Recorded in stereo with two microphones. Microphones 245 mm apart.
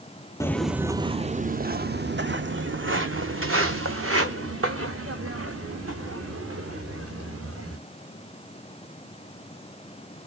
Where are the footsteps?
10° left (ahead or behind), 0.5 m; by 7.8 s 65° right (ahead or behind), 4 m.